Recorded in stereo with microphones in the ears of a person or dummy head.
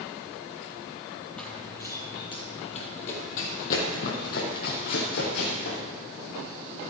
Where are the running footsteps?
5° left (ahead or behind), 1.7 m; by 5.8 s 65° left (ahead or behind), 4 m.